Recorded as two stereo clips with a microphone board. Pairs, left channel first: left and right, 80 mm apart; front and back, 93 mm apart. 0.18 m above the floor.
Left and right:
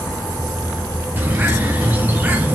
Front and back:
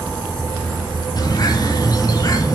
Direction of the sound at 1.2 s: 30° right.